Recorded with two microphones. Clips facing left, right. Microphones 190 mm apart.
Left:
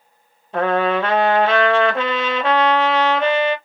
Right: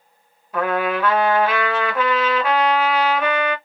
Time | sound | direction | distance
0.5 | a trumpet | 25° left (ahead or behind) | 0.8 m